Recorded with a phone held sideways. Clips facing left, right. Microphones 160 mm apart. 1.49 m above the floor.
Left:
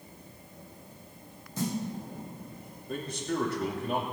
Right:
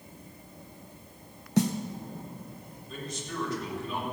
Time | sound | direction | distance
1.6 | a snare drum | 75° right (ahead or behind) | 1.2 m
2.9 | a man speaking | 60° left (ahead or behind) | 3 m